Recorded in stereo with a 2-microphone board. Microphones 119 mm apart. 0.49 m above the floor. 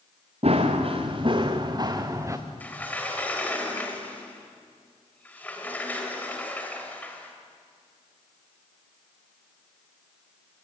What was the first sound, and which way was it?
Running footsteps, 60° right (ahead or behind).